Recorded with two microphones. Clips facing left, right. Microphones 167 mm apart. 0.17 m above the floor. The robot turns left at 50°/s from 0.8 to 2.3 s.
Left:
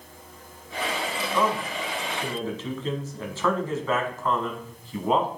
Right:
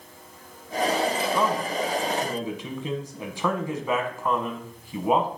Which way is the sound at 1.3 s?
20° right (ahead or behind).